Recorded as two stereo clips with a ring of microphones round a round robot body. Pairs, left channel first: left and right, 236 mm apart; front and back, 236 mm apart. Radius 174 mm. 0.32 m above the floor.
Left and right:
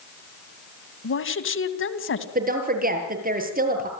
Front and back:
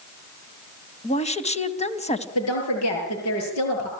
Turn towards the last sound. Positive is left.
turn(degrees=-35)